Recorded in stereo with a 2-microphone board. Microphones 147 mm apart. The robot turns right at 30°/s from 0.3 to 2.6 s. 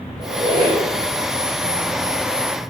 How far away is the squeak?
About 1.3 m.